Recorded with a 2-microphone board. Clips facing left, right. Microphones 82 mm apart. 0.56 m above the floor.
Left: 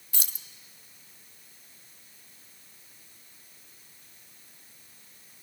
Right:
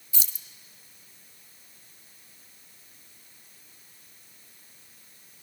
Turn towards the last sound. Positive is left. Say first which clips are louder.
# left 1 dB
turn(degrees=55)  # may be behind; listen again after turning